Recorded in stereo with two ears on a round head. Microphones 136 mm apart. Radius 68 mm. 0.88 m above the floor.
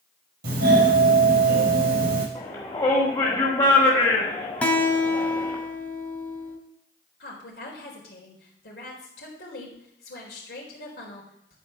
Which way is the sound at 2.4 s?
30° left (ahead or behind).